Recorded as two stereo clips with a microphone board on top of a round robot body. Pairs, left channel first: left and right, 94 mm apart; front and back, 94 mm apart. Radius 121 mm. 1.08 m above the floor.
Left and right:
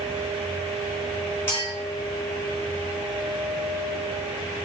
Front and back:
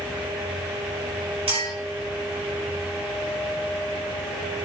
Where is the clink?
160° left, 2 m.